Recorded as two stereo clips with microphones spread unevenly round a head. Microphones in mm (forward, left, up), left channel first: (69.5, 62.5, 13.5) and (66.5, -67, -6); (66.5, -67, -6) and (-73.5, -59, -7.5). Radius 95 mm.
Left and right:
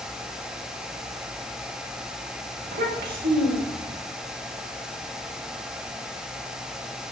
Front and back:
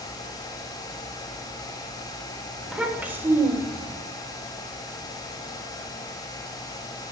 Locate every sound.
2.6 s a child speaking: 95° right, 3.5 m; by 4.0 s 130° right, 3 m